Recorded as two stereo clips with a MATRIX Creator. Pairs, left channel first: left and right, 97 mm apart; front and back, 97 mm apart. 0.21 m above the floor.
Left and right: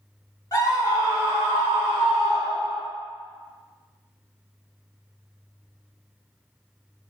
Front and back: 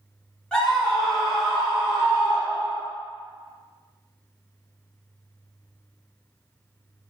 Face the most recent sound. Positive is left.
turn(degrees=-170)